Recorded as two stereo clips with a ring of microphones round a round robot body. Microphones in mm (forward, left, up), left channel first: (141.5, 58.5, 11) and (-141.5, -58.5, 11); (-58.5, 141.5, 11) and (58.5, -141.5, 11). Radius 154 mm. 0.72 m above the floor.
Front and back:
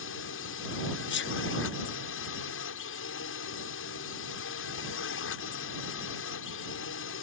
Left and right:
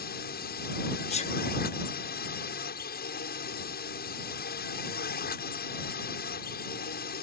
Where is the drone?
60° left.